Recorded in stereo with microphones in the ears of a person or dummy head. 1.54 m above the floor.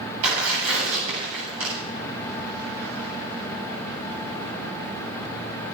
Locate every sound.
0.2 s tearing paper: 80° right, 9 m